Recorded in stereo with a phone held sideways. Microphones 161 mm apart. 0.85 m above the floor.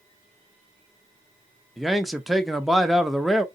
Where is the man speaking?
Centre (ahead or behind), 0.7 m.